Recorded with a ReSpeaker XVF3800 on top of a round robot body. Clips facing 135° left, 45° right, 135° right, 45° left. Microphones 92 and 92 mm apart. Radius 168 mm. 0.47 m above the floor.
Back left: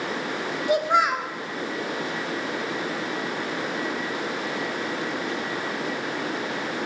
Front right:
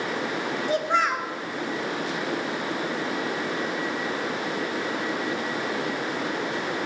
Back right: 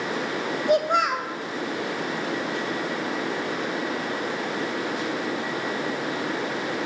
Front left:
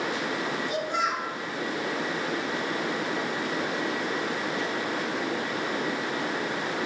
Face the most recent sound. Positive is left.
turn(degrees=-150)